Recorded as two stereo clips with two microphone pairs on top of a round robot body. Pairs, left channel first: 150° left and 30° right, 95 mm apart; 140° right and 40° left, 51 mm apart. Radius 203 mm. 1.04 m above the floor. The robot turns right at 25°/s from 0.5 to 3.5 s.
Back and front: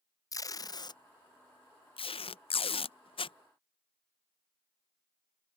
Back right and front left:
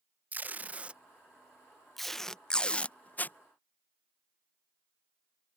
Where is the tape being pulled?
95° left; by 3.4 s 170° left.